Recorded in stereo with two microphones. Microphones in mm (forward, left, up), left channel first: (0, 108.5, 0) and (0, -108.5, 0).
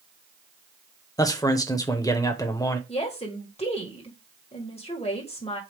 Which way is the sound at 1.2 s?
15° left (ahead or behind).